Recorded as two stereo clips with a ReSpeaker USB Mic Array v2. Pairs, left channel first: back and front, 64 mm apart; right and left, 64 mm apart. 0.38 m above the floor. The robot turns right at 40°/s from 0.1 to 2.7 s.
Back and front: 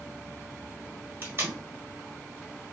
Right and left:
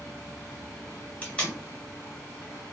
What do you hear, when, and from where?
1.2 s tape being pulled: 30° right, 1.4 m; by 1.6 s 15° right, 1.4 m